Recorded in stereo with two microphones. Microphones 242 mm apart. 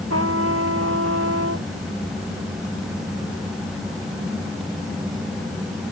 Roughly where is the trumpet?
Right.